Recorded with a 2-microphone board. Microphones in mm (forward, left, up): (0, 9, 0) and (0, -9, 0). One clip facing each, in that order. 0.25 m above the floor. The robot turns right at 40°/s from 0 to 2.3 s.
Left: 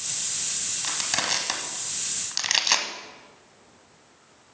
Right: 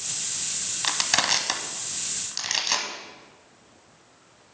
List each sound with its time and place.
0.8 s crushing: 25° right (ahead or behind), 1.0 m; by 2.9 s 20° left (ahead or behind), 1.0 m